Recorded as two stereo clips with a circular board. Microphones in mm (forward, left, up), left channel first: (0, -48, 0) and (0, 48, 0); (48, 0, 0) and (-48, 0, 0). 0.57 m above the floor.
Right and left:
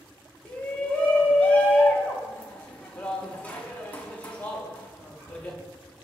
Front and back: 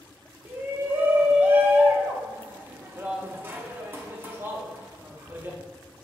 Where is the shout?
145° right, 0.6 m.